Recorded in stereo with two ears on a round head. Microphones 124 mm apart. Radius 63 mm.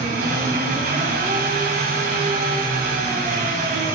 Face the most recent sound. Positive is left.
turn(degrees=-70)  # may be behind; listen again after turning